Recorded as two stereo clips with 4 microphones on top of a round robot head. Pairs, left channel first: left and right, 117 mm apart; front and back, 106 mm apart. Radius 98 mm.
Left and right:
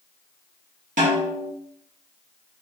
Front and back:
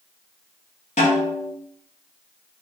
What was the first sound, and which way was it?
A snare drum, 50° right.